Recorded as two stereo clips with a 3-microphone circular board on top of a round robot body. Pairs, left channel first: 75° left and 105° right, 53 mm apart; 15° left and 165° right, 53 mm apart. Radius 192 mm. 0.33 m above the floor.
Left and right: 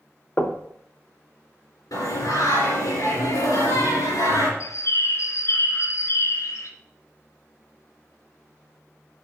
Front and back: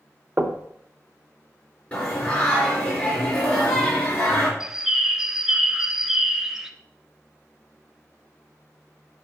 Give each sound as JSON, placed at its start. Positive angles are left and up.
{"t": 0.4, "sound": "knocking", "azimuth_deg": 130, "distance_m": 1.0}
{"t": 1.9, "sound": "singing", "azimuth_deg": 75, "distance_m": 3.0}
{"t": 4.6, "sound": "a bird", "azimuth_deg": 110, "distance_m": 0.5}